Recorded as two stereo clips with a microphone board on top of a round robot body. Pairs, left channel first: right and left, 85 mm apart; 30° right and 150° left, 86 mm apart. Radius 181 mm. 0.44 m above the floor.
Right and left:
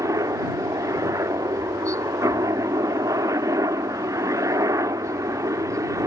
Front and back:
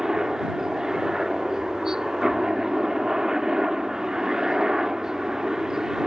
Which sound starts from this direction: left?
A helicopter, at 0.0 s.